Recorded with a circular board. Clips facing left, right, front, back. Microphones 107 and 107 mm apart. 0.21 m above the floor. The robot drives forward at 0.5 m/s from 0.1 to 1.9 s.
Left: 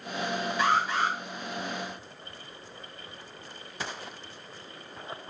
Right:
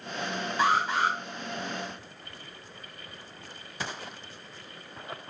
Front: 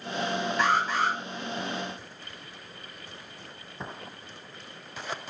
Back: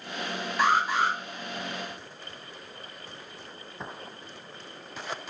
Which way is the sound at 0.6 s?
105° right.